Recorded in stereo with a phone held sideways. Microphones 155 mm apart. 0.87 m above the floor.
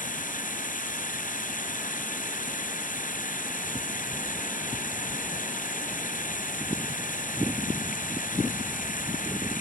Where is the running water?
65° left (ahead or behind).